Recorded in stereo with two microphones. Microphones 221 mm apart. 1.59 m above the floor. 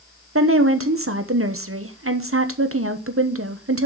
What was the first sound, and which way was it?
A woman speaking, 75° right (ahead or behind).